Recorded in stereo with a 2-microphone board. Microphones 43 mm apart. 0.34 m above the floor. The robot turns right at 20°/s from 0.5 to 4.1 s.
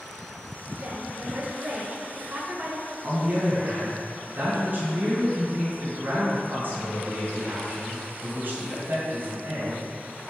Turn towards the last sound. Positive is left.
turn(degrees=-55)  # may be behind; listen again after turning